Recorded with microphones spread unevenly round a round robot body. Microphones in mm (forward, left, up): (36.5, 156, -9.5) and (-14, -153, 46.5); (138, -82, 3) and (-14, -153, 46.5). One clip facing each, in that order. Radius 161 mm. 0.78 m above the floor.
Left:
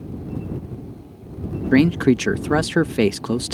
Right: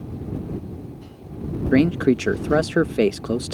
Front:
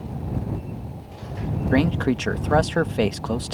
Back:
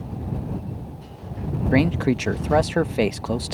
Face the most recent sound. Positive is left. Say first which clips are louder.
# left 2 dB, back 1 dB
turn(degrees=100)